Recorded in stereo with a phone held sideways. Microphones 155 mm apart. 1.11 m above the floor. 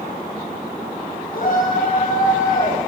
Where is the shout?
65° left (ahead or behind), 8.5 m; by 2.8 s 50° left (ahead or behind), 8.5 m.